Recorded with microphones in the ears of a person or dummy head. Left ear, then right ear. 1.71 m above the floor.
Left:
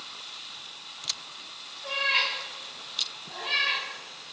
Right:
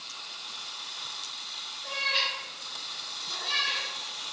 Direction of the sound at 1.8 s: 30° left (ahead or behind).